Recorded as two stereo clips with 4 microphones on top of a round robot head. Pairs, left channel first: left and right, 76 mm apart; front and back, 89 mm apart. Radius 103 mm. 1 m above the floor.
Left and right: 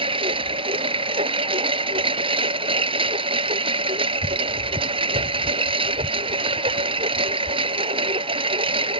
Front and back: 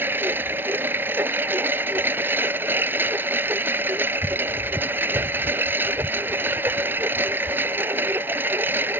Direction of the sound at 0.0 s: 105° right.